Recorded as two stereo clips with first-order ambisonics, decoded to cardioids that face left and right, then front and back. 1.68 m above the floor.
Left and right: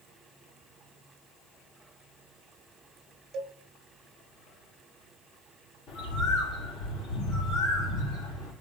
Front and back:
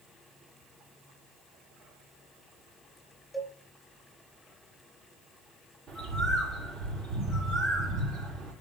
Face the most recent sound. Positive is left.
turn(degrees=105)